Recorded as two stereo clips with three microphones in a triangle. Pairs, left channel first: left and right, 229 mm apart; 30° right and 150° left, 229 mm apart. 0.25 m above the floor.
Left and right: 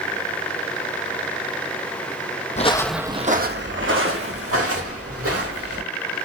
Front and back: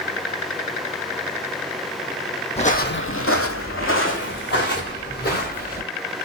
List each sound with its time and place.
2.6 s footsteps: 30° left, 0.7 m; by 5.8 s 80° right, 2.5 m